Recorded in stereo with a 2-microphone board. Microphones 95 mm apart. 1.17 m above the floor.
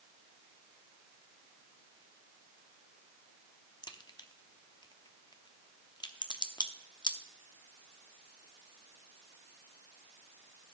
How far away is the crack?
About 0.8 m.